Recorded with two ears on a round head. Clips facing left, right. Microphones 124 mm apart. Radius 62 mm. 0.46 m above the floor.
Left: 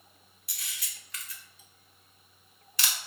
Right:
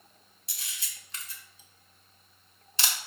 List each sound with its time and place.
0.5 s a camera shutter: 25° right (ahead or behind), 0.8 m